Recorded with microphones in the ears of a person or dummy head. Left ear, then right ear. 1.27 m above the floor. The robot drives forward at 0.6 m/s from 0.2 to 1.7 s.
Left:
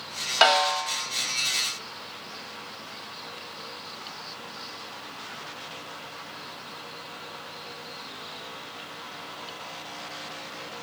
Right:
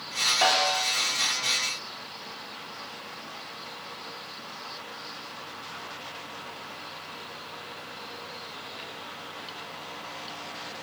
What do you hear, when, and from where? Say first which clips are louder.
0.4 s a snare drum: left 6 dB; 60° left (ahead or behind), 1.1 m; by 0.8 s 55° left (ahead or behind), 1.2 m